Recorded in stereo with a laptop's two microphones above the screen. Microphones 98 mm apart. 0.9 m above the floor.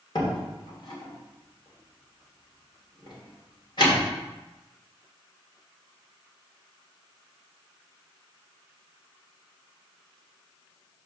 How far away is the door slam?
About 2 m.